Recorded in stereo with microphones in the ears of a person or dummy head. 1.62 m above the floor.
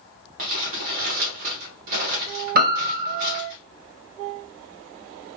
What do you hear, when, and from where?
0.4 s crumpling: 45° right (ahead or behind), 0.9 m
2.5 s a piano: 50° right (ahead or behind), 0.6 m